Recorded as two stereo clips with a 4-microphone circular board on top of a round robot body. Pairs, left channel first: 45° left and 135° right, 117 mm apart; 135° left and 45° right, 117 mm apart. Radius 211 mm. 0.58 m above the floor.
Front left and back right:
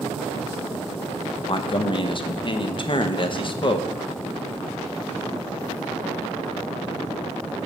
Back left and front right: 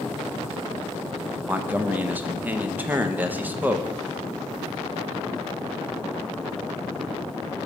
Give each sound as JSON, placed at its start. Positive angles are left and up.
{"t": 1.5, "sound": "a man speaking", "azimuth_deg": 25, "distance_m": 1.0}